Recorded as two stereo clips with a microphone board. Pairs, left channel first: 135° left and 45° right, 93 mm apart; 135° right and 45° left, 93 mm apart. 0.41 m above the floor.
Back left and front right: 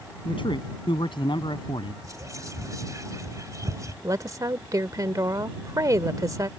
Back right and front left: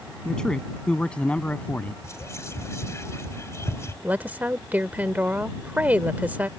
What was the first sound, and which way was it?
A man speaking, 140° left.